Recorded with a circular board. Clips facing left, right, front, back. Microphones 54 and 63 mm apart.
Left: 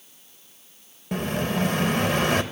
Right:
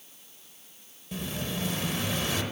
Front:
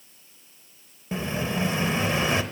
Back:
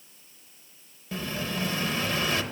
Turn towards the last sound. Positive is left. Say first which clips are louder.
# left 9 dB, front 4 dB
turn(degrees=65)